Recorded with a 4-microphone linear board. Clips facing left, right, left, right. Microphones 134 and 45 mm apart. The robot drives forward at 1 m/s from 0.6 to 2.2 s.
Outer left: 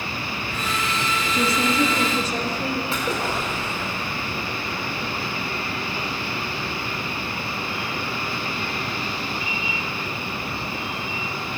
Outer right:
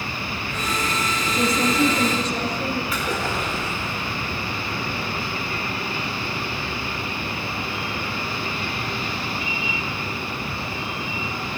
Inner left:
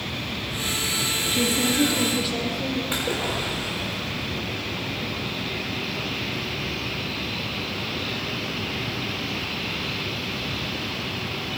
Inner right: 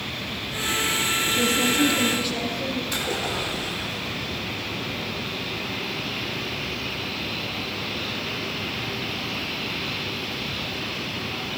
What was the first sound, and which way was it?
A woman speaking, 5° left (ahead or behind).